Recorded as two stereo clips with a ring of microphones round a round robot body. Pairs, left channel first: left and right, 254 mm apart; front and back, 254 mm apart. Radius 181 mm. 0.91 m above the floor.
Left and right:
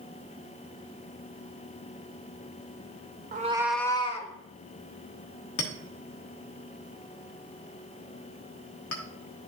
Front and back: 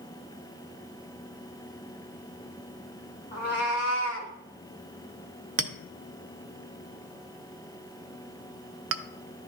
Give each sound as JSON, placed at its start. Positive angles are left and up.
{"t": 3.3, "sound": "a cat meowing", "azimuth_deg": -55, "distance_m": 0.7}
{"t": 5.6, "sound": "a clink", "azimuth_deg": 140, "distance_m": 0.7}